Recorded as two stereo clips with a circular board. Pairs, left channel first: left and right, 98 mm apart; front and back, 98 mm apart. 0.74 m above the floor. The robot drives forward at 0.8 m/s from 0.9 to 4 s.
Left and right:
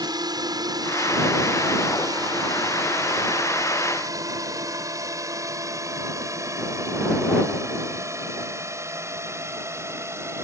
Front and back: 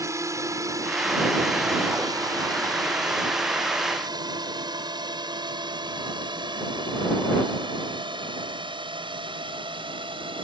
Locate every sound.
0.0 s a drone: 125° right; by 10.5 s 150° right